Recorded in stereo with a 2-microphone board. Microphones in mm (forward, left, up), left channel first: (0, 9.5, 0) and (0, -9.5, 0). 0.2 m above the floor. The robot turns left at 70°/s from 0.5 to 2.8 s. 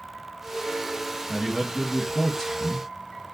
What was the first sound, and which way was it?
A man speaking, 140° right.